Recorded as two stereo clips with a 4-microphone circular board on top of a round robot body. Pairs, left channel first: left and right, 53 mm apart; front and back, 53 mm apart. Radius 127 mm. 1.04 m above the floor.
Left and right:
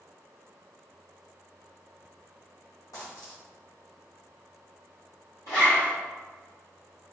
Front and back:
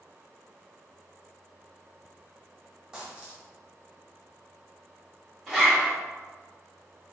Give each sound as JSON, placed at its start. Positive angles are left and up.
{"t": 2.9, "sound": "a dropped coin", "azimuth_deg": 100, "distance_m": 1.3}
{"t": 5.5, "sound": "a zipper", "azimuth_deg": 90, "distance_m": 1.0}